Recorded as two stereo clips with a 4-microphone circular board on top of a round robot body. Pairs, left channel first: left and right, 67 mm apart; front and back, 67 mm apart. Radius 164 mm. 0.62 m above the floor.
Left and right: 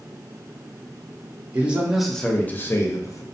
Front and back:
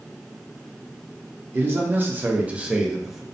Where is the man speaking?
145° right, 0.7 m; by 3.2 s 95° left, 0.9 m.